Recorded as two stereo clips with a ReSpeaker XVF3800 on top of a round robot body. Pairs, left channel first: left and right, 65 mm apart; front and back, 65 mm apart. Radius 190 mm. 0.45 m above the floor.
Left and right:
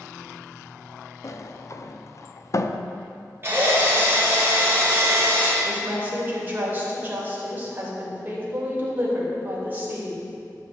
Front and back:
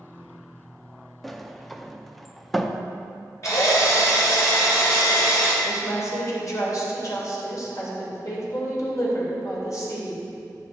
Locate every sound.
1.2 s a sliding door: 90° left, 0.8 m
3.4 s a drill: 35° right, 3.5 m
5.6 s a woman speaking: 30° right, 3.5 m